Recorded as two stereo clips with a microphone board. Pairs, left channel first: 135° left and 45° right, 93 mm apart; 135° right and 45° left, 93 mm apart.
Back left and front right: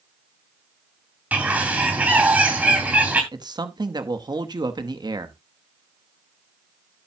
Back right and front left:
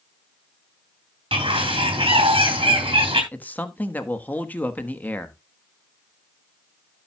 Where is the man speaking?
65° right, 1.1 m.